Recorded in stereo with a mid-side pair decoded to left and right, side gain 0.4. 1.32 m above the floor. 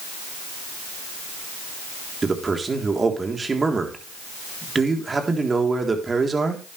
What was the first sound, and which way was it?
A man speaking, 35° right.